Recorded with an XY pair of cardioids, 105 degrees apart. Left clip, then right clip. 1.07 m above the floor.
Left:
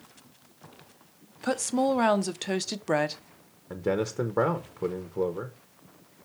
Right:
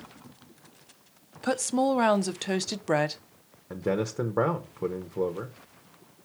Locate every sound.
1.4 s a woman speaking: 5° right, 0.6 m
3.7 s a man speaking: straight ahead, 0.8 m